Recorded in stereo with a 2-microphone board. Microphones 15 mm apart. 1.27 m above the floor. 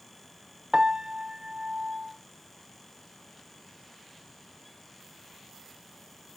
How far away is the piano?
About 0.8 m.